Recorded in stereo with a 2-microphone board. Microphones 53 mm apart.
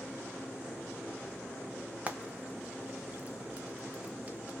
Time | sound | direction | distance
2.1 | frying | 25° right (ahead or behind) | 0.5 m